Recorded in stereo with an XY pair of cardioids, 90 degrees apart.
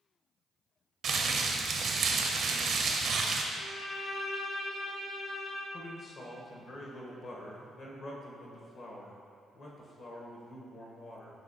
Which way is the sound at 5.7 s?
55° left.